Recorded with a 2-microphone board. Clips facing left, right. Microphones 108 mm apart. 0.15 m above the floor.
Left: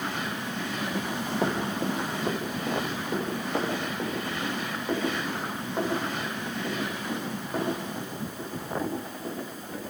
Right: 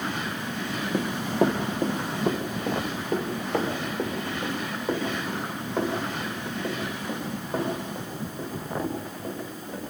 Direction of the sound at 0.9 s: 60° right (ahead or behind).